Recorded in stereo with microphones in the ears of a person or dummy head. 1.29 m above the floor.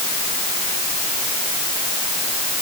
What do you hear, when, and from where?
Only background noise.